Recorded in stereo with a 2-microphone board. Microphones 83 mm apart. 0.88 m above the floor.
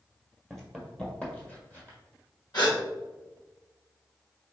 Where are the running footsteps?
Centre (ahead or behind), 1.1 m; by 2.0 s 25° left (ahead or behind), 1.7 m.